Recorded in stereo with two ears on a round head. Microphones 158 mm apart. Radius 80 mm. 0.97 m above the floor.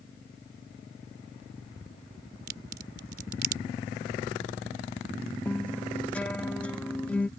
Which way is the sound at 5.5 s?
5° left (ahead or behind).